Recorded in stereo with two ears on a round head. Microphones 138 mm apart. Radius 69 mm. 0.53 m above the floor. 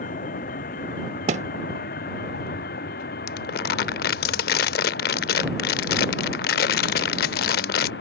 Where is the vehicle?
55° left (ahead or behind); by 8.0 s 75° left (ahead or behind).